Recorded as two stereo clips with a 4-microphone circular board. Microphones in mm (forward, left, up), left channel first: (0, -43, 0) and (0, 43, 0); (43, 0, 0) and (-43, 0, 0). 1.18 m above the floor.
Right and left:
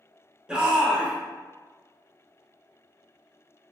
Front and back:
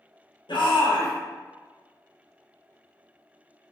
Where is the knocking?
No knocking in this recording.